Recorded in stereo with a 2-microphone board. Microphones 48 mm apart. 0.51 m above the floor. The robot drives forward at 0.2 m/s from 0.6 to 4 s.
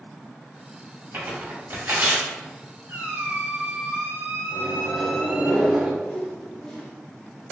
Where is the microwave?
15° right (ahead or behind), 0.8 m.